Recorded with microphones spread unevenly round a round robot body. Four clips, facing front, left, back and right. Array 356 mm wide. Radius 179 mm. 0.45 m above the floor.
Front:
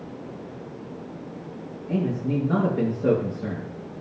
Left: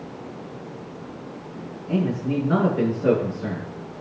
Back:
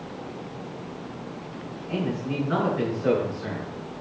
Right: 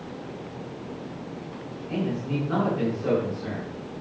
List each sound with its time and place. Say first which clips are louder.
1.9 s a man speaking: left 5 dB, front 3 dB; 35° left, 8 m